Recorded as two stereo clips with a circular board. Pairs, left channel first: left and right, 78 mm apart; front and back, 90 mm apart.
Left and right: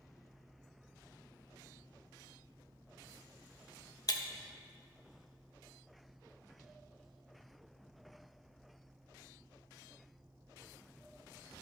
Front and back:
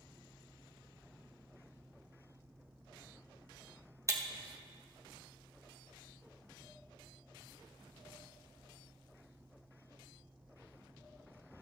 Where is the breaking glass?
125° left, 0.9 m.